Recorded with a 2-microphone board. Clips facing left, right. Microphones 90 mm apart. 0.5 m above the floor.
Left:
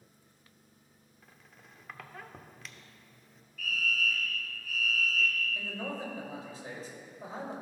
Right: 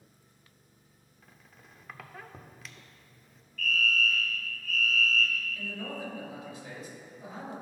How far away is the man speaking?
About 2 m.